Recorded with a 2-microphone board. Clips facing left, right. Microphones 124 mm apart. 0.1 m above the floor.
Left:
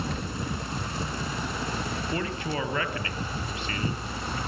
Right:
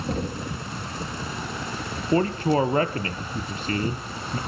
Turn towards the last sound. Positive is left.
turn(degrees=-40)  # may be behind; listen again after turning